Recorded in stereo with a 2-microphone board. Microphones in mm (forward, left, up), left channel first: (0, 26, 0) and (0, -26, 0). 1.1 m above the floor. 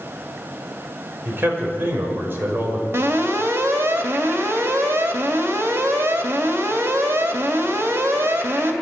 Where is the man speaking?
45° right (ahead or behind), 6 m.